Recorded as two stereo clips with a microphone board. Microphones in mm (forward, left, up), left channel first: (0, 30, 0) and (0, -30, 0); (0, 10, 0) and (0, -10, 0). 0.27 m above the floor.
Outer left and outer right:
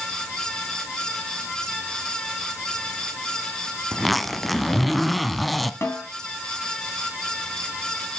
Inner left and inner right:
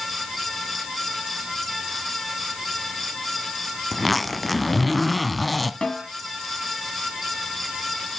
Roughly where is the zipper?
Centre.